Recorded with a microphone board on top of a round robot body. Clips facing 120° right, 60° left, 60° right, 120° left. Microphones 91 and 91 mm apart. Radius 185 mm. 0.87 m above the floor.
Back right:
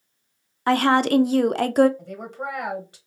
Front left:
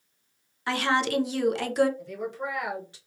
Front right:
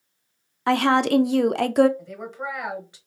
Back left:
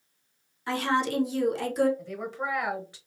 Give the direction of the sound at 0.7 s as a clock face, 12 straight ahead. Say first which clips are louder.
Back right 7 dB, front right 8 dB; 3 o'clock.